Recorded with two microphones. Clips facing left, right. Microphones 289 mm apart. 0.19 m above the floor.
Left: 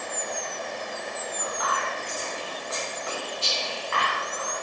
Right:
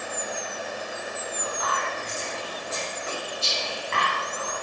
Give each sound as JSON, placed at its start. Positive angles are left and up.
{"t": 1.4, "sound": "whispering", "side_deg": -30, "distance_m": 1.8}